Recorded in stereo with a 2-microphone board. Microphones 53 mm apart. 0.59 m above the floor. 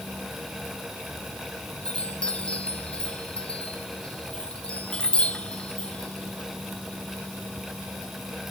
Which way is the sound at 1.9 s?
20° left (ahead or behind).